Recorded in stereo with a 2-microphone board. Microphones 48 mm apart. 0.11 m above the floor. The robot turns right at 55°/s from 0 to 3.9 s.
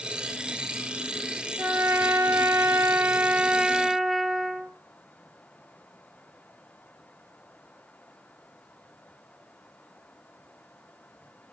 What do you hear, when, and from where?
1.6 s a trumpet: 135° right, 0.5 m; by 4.7 s 5° right, 0.5 m